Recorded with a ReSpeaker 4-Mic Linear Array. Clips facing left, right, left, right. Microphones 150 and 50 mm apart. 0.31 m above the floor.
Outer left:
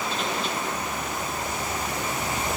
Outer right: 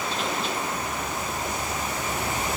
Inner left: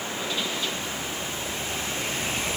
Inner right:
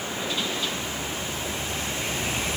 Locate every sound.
Only background noise.